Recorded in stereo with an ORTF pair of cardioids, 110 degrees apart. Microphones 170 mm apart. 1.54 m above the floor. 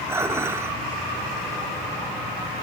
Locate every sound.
0.1 s dishes clattering: 15° right, 3 m